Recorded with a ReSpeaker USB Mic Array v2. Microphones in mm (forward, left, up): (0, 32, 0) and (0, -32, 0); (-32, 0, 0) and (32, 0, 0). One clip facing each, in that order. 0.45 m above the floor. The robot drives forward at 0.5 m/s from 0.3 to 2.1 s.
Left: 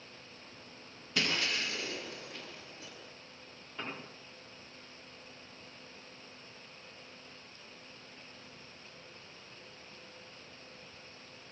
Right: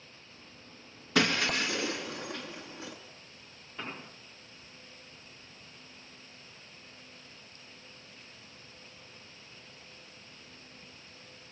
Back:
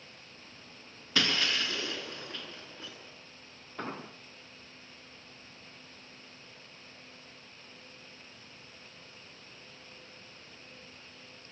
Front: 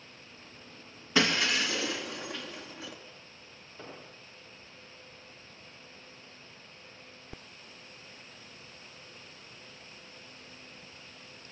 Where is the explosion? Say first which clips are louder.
Right 1 dB, back 8 dB; 175° right, 1.2 m.